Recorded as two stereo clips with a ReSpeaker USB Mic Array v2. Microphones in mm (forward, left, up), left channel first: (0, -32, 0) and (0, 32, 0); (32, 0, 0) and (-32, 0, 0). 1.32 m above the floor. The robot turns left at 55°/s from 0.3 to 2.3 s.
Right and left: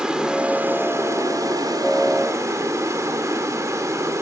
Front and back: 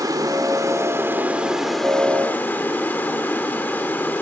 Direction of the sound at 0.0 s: 170° left.